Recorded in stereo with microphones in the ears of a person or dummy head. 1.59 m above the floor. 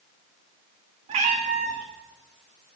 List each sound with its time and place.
1.1 s a cat meowing: 30° right (ahead or behind), 1.7 m